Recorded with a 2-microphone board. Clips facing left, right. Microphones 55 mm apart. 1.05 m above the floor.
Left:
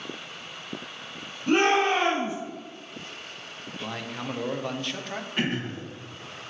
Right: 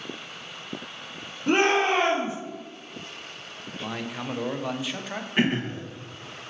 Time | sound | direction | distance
1.5 | a shout | 25° right (ahead or behind) | 3 m
3.8 | a man speaking | 5° right (ahead or behind) | 0.6 m
5.4 | throat clearing | 30° right (ahead or behind) | 1.5 m